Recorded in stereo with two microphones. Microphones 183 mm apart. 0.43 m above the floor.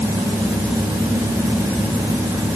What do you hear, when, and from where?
Only background noise.